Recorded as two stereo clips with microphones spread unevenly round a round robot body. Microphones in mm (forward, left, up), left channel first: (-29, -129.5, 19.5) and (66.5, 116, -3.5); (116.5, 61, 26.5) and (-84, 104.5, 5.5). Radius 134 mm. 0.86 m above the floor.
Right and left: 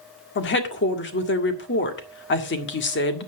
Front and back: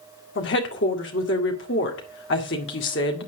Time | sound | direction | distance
0.3 | a woman speaking | 60° right | 1.9 m